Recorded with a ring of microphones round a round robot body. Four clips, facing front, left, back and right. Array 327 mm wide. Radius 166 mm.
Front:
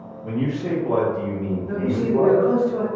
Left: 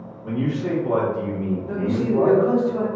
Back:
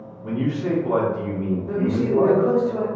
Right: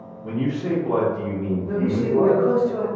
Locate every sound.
0.2 s a man speaking: 155° left, 0.9 m
1.7 s a man speaking: 160° right, 0.8 m